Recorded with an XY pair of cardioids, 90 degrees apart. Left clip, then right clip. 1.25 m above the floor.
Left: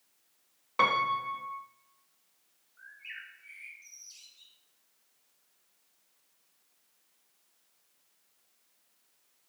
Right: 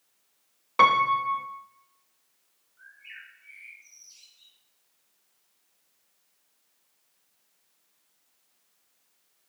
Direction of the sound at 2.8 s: 45° left.